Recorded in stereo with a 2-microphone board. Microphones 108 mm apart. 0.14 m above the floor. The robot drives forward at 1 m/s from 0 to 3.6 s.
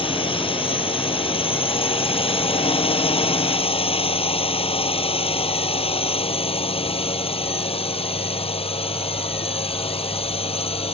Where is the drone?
60° left (ahead or behind); by 10.9 s 65° left (ahead or behind).